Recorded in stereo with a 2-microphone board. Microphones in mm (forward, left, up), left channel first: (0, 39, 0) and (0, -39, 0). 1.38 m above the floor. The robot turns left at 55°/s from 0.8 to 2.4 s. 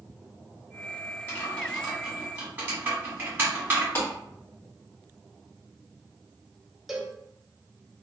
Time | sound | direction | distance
1.3 | typing on a keyboard | 30° left (ahead or behind) | 1.4 m
4.0 | a clap | 35° left (ahead or behind) | 1.6 m
6.9 | a cowbell | 5° right (ahead or behind) | 0.5 m